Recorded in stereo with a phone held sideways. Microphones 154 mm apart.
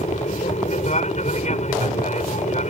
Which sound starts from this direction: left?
An aircraft, at 0.0 s.